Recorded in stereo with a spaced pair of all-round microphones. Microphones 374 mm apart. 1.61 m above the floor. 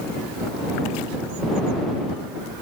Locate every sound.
Only background noise.